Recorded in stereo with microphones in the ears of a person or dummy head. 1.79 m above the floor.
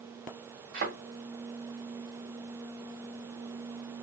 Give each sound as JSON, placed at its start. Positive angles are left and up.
{"t": 0.7, "sound": "a thud", "side_deg": -50, "distance_m": 3.0}